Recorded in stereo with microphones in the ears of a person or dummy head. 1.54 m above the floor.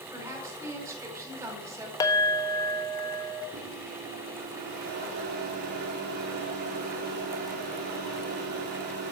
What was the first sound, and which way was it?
A woman speaking, 15° right (ahead or behind).